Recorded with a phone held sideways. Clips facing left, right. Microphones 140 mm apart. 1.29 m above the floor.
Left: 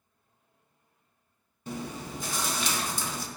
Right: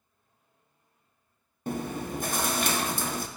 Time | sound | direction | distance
1.7 | chewing | 55° right (ahead or behind) | 0.5 m